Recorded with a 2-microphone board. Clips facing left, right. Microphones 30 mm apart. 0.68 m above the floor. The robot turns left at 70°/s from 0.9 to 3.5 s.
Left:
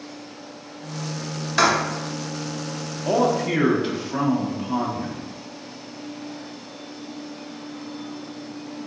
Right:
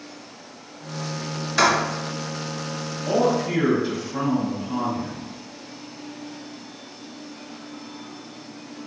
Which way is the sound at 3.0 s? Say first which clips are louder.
Left 1 dB; 110° left.